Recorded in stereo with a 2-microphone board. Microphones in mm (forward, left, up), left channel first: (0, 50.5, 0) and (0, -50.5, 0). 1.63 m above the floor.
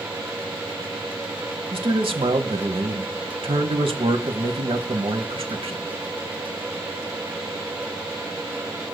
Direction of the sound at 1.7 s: 70° right (ahead or behind).